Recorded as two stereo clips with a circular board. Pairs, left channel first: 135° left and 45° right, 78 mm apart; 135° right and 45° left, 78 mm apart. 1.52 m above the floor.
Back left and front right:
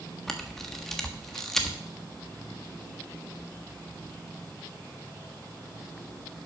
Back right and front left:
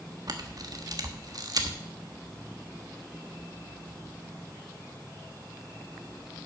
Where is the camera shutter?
50° left, 1.3 m.